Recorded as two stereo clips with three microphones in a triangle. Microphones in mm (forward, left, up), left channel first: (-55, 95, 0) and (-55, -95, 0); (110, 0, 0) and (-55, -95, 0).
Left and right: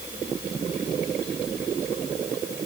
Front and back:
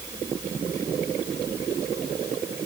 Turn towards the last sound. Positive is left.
No sound to turn to.